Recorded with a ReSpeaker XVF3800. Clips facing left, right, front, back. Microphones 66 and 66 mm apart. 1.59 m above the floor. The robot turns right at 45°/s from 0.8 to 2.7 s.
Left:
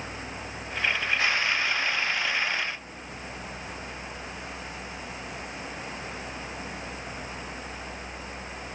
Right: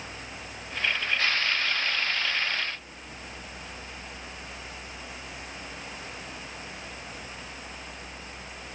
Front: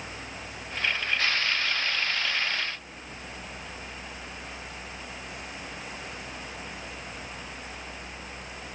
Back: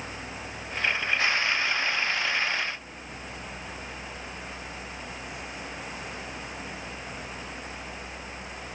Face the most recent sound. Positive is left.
No sound to turn to.